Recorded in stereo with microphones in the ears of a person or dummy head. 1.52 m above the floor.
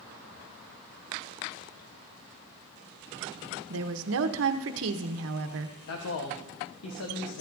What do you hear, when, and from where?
3.7 s a woman speaking: 75° right (ahead or behind), 0.9 m
5.9 s a man speaking: 80° left, 1.1 m